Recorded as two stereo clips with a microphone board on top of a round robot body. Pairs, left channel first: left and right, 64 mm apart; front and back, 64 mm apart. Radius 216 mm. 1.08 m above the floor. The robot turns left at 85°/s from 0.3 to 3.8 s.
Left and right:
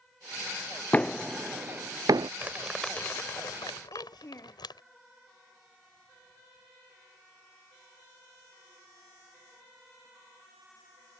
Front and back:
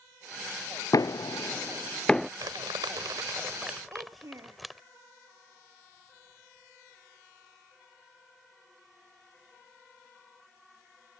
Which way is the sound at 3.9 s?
135° left.